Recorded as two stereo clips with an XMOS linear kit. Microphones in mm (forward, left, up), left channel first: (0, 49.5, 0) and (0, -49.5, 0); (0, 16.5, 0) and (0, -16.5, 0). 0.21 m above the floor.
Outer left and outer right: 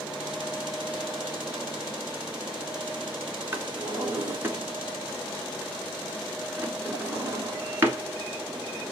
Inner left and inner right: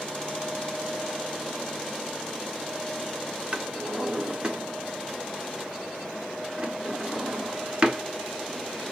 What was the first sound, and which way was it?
A drawer, 25° right (ahead or behind).